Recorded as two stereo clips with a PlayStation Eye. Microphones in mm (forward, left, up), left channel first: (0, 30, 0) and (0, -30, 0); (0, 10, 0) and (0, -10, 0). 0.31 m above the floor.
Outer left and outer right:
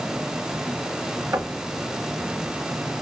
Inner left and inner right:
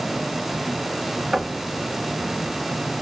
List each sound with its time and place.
1.3 s knocking: 50° right (ahead or behind), 2 m